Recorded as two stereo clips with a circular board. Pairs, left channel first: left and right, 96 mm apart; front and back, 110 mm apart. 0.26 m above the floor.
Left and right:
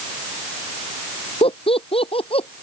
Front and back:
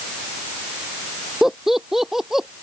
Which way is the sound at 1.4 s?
90° left.